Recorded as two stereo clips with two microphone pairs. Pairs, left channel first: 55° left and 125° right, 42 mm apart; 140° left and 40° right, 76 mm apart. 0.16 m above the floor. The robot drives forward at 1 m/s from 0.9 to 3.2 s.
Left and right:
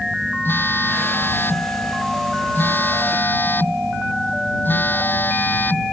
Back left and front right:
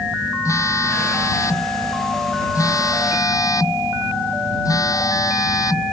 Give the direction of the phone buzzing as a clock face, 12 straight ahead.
9 o'clock.